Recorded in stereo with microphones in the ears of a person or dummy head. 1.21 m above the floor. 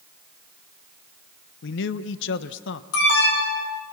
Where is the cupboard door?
I don't hear a cupboard door.